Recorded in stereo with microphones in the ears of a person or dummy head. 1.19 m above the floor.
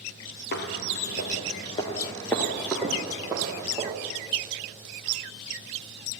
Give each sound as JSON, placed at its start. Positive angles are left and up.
{"t": 0.5, "sound": "footsteps", "side_deg": 55, "distance_m": 2.0}